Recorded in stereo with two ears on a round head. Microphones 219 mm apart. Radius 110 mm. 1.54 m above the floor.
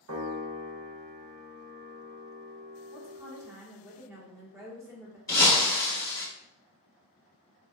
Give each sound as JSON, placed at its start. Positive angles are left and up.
{"t": 0.1, "sound": "a piano", "side_deg": -60, "distance_m": 0.8}
{"t": 2.9, "sound": "a woman speaking", "side_deg": -10, "distance_m": 1.1}
{"t": 5.3, "sound": "breaking glass", "side_deg": 15, "distance_m": 1.5}